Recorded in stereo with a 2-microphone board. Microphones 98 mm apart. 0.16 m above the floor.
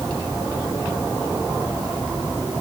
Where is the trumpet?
I don't hear a trumpet.